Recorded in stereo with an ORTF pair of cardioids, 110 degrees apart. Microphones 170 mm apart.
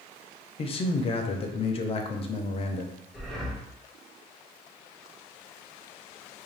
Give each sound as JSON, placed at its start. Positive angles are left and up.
{"t": 0.6, "sound": "a man speaking", "azimuth_deg": 35, "distance_m": 0.5}
{"t": 3.1, "sound": "breathing", "azimuth_deg": 0, "distance_m": 0.5}